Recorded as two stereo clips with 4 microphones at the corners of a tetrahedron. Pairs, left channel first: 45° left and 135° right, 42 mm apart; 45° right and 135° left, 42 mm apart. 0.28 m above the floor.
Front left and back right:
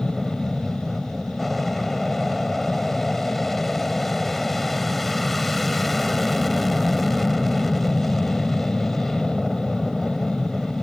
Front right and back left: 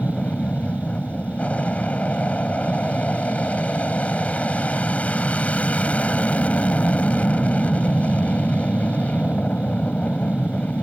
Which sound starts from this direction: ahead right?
An aircraft, at 0.0 s.